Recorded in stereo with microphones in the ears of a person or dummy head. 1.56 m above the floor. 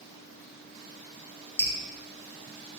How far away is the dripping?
About 0.6 m.